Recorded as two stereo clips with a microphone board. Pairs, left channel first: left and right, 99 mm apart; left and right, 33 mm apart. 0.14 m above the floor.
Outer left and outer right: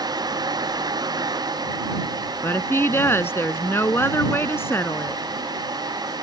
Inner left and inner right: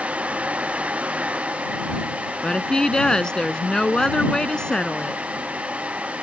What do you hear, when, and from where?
2.4 s a woman speaking: 25° left (ahead or behind)